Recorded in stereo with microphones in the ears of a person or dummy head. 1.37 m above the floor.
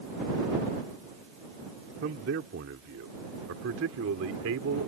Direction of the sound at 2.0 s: 60° right (ahead or behind).